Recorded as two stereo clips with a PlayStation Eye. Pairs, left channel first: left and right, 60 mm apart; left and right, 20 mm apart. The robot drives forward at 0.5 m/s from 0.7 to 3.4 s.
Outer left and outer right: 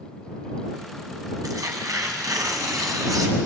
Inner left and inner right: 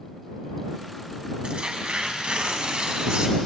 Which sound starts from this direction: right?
Tearing paper, at 1.4 s.